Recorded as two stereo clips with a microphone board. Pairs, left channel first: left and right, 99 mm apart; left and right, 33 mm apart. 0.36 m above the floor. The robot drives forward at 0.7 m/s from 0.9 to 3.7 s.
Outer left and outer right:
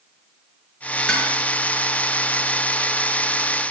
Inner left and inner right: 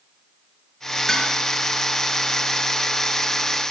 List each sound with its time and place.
1.1 s dishes clattering: 10° left (ahead or behind), 4.5 m